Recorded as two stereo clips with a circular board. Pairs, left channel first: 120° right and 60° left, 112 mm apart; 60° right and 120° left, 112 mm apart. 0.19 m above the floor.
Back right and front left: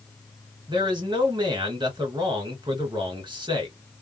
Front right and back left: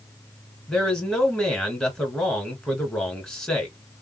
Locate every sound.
0.7 s a man speaking: 25° left, 1.7 m